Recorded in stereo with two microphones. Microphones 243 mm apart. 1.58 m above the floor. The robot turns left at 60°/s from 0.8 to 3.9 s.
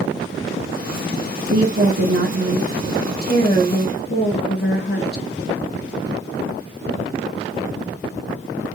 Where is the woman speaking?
80° right, 1.3 m; by 5.2 s 135° left, 1.3 m.